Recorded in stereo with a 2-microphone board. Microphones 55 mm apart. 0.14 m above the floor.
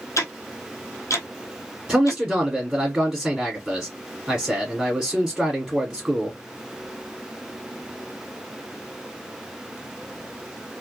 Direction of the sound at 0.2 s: 70° left (ahead or behind).